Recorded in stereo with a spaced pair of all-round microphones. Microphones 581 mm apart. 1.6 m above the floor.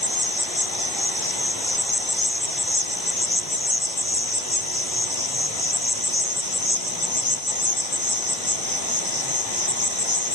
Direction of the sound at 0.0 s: 65° left (ahead or behind).